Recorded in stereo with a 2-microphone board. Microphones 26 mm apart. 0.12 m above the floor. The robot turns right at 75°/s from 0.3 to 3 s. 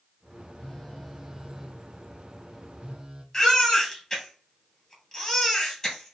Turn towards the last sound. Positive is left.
turn(degrees=10)  # may be behind; listen again after turning